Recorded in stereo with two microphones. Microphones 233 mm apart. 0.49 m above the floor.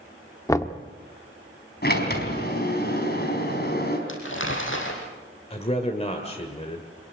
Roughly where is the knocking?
Centre.